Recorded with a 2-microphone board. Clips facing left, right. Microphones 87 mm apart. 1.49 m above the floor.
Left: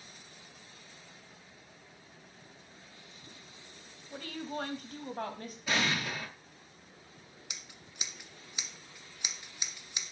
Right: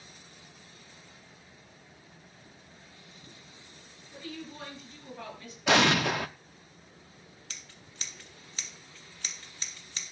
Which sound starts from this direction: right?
An explosion, at 5.7 s.